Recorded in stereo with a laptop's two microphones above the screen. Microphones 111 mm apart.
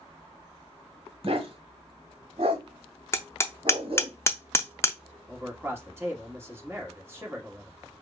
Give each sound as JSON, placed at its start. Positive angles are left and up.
{"t": 1.2, "sound": "a dog barking", "side_deg": -55, "distance_m": 1.9}
{"t": 3.1, "sound": "hammering", "side_deg": 20, "distance_m": 0.5}
{"t": 5.3, "sound": "a man speaking", "side_deg": -20, "distance_m": 2.0}